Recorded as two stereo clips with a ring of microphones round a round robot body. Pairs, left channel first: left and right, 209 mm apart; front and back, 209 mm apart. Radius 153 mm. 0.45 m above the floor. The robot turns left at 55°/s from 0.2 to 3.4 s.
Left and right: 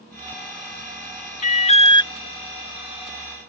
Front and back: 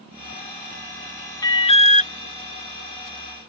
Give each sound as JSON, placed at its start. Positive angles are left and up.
{"t": 1.4, "sound": "an alarm", "azimuth_deg": 65}